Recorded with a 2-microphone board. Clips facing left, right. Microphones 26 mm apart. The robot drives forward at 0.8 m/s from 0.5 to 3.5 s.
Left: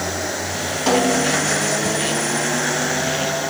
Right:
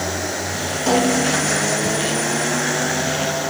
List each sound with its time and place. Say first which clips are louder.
0.9 s a snare drum: even; 45° left (ahead or behind), 8.5 m